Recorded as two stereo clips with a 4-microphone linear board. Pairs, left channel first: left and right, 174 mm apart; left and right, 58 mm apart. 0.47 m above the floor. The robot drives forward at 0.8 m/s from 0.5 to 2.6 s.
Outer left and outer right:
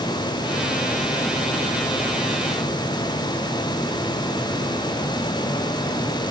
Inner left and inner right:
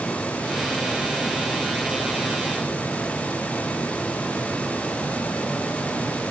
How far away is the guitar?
I don't hear a guitar.